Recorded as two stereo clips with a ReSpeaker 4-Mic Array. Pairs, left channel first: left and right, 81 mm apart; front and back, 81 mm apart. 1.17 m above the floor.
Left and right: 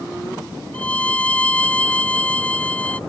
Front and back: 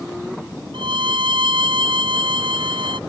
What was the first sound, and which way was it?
A violin, 165° left.